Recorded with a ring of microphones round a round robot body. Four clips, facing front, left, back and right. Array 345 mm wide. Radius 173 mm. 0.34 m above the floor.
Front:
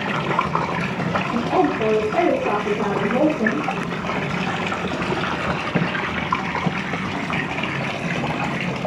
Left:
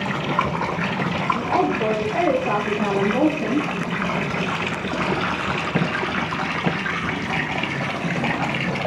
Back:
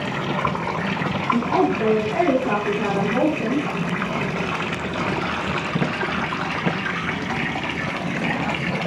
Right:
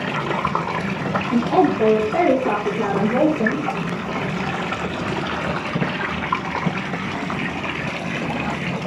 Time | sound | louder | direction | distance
1.3 | a woman speaking | right 5 dB, even | 105° right | 8.5 m